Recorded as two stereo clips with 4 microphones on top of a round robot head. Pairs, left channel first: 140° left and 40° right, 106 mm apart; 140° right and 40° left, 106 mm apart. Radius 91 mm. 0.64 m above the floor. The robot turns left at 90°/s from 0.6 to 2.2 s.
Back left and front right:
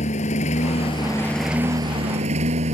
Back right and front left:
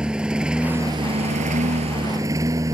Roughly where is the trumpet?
I don't hear a trumpet.